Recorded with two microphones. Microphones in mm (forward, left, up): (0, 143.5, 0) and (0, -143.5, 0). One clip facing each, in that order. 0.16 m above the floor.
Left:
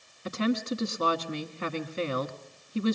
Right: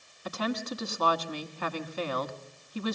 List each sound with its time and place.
0.2 s a woman speaking: 30° left (ahead or behind), 1.1 m